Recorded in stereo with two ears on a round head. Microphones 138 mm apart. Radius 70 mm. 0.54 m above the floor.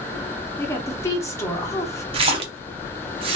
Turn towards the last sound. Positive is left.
turn(degrees=-40)  # may be behind; listen again after turning